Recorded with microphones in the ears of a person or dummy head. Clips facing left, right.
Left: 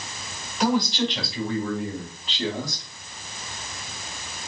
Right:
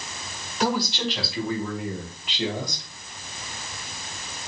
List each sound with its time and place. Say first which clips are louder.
0.6 s a man speaking: left 3 dB; centre (ahead or behind), 3.5 m; by 2.9 s 20° right (ahead or behind), 1.8 m